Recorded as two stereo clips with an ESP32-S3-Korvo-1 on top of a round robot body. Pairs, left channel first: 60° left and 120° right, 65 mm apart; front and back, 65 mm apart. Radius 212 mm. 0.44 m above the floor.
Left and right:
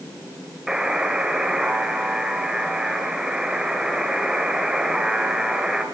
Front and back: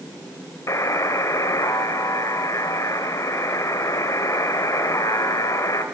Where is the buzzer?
40° right, 2.5 m.